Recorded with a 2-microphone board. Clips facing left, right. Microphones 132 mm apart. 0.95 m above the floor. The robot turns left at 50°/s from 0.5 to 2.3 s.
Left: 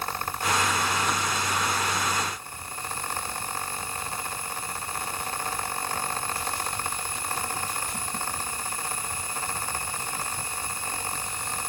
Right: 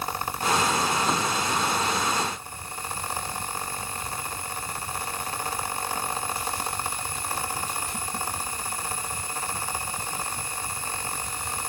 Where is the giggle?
No giggle in this recording.